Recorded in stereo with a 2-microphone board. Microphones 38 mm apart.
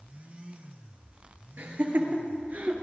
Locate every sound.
1.6 s laughter: 55° right (ahead or behind), 2.5 m; by 2.7 s 40° right (ahead or behind), 1.9 m